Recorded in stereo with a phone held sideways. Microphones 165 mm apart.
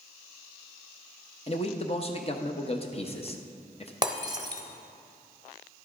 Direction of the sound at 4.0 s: 25° right (ahead or behind).